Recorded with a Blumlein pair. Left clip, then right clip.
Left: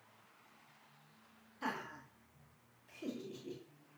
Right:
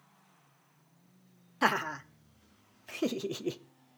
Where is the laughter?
35° right, 0.9 m.